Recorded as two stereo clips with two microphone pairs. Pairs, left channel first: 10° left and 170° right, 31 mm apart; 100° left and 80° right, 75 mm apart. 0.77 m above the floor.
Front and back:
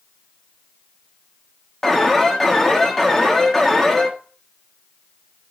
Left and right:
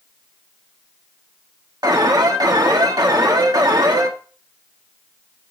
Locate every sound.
1.8 s an alarm: 65° right, 1.4 m